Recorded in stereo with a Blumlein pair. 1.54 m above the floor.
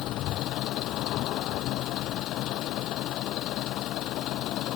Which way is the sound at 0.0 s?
35° left.